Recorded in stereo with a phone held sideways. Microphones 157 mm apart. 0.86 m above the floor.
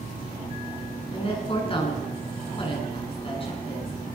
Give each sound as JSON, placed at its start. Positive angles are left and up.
{"t": 1.1, "sound": "a woman speaking", "side_deg": 35, "distance_m": 8.0}